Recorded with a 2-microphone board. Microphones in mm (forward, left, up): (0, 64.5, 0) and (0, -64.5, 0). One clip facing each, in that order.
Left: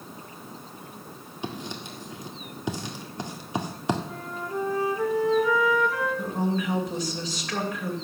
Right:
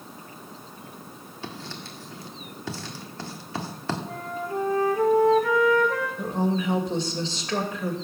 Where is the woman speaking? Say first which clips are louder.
Right 2 dB; 30° right (ahead or behind), 2.5 m.